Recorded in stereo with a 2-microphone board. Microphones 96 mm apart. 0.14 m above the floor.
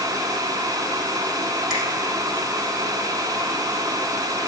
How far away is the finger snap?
About 4.5 m.